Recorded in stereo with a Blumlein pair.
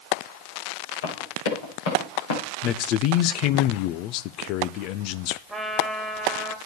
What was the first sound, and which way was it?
Running footsteps, 60° left.